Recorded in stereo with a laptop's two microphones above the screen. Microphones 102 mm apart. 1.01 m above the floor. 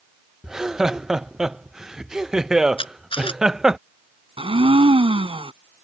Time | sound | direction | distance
0.4 | laughter | 5° right (ahead or behind) | ?
2.8 | a camera shutter | 60° left (ahead or behind) | ?
4.4 | a blender | 60° right (ahead or behind) | ?